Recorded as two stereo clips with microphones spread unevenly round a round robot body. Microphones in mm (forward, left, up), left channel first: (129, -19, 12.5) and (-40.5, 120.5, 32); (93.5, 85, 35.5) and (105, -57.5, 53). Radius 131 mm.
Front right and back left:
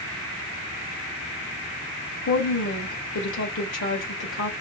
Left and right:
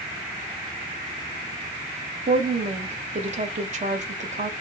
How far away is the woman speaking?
About 1.1 m.